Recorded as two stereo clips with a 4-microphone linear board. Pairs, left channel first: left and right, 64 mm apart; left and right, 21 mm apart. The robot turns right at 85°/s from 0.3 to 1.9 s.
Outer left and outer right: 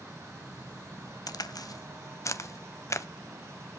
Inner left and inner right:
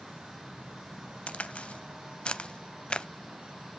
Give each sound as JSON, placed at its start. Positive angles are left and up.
{"t": 1.3, "sound": "a crack", "side_deg": 75, "distance_m": 0.5}